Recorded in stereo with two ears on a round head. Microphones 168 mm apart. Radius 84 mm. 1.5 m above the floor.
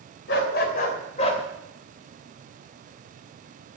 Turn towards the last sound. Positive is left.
turn(degrees=30)  # may be behind; listen again after turning